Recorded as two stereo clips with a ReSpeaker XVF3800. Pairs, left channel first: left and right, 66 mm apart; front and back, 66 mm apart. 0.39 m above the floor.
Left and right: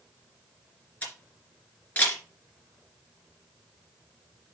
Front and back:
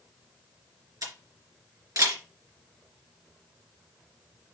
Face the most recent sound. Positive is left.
turn(degrees=155)